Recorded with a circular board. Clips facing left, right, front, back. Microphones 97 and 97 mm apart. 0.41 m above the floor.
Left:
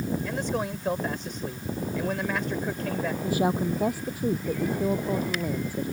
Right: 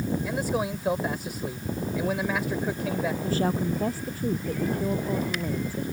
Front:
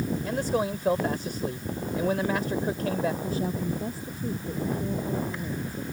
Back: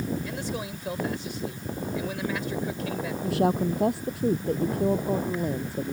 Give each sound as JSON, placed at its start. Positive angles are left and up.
{"t": 0.2, "sound": "a man speaking", "azimuth_deg": -10}
{"t": 3.2, "sound": "a woman speaking", "azimuth_deg": 165}